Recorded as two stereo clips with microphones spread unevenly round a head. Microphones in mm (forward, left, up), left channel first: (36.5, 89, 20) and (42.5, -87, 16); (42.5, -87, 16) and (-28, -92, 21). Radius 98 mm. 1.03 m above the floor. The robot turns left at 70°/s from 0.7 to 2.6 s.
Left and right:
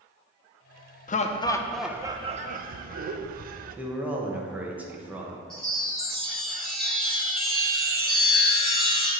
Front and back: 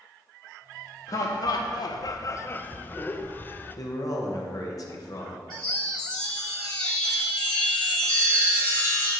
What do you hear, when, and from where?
1.1 s laughter: 50° left, 0.5 m; by 3.8 s 55° right, 0.5 m
3.8 s a man speaking: 10° right, 0.9 m
5.5 s a chime: 5° left, 2 m